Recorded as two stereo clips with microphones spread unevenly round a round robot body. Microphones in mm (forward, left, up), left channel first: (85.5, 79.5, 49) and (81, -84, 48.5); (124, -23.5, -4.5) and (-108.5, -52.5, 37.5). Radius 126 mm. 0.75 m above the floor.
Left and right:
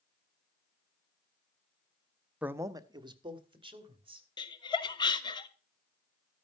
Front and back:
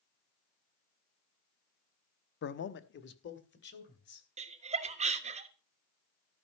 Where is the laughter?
130° left, 1.0 m.